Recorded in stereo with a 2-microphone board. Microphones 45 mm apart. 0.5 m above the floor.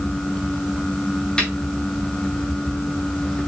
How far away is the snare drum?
About 4.5 m.